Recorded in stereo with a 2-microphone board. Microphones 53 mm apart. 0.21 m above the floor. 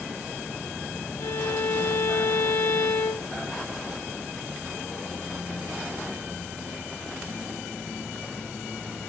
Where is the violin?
60° left (ahead or behind), 0.8 m.